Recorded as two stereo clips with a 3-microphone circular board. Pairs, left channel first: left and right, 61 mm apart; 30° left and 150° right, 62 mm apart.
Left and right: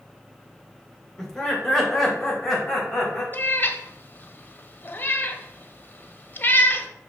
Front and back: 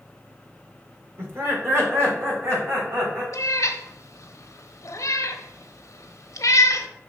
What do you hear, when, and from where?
1.2 s laughter: 170° left, 2 m; by 3.2 s 175° left, 3.5 m
3.3 s a cat meowing: 40° left, 0.6 m